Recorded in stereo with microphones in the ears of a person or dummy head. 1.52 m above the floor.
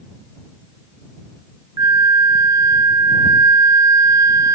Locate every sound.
1.8 s a flute: 15° right (ahead or behind)